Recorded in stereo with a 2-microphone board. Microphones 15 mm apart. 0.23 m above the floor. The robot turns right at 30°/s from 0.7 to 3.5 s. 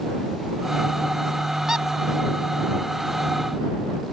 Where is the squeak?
35° right (ahead or behind); by 1.9 s 30° right (ahead or behind).